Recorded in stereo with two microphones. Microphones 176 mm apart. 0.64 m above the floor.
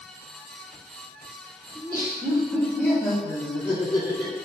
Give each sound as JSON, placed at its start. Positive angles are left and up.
{"t": 1.8, "sound": "laughter", "side_deg": -30, "distance_m": 1.2}